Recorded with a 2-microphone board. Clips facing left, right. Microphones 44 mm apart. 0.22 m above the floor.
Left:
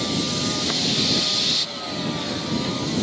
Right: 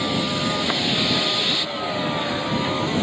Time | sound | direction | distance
0.0 | a vehicle | 15° right (ahead or behind) | ?